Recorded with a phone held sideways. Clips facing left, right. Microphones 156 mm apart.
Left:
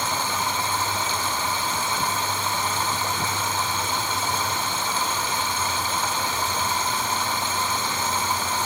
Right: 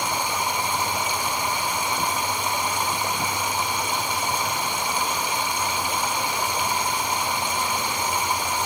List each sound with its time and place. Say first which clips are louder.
0.0 s running water: right 1 dB; 15° right (ahead or behind), 1.8 m